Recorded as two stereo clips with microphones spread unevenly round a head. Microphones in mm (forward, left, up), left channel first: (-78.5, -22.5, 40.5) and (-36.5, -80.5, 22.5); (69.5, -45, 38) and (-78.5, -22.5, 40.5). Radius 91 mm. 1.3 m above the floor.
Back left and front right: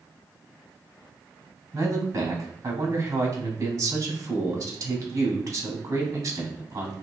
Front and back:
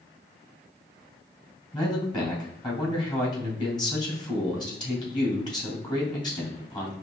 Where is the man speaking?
65° right, 2.5 m.